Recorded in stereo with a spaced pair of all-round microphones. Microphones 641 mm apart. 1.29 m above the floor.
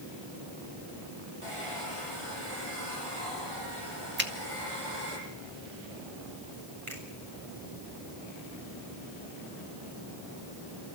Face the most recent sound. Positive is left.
turn(degrees=-50)  # may be behind; listen again after turning